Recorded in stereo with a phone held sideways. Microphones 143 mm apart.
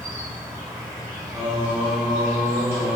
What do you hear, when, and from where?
0.0 s an insect: 20° right (ahead or behind), 1.2 m
1.3 s singing: 50° right (ahead or behind), 1.8 m